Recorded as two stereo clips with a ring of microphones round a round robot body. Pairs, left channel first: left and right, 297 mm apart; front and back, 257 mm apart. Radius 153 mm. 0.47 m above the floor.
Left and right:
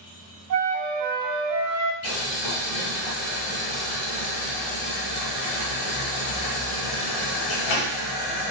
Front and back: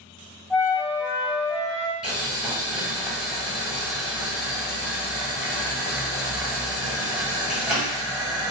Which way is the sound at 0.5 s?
85° right.